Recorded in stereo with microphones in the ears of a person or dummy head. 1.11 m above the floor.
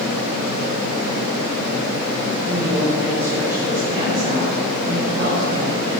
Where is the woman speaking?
5° right (ahead or behind), 5 m; by 5.9 s 50° right (ahead or behind), 4.5 m.